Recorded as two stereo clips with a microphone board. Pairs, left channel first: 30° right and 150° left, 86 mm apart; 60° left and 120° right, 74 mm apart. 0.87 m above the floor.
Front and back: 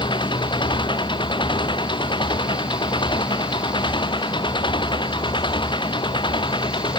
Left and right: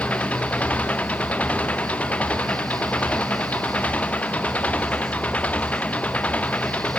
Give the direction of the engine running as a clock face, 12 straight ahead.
12 o'clock.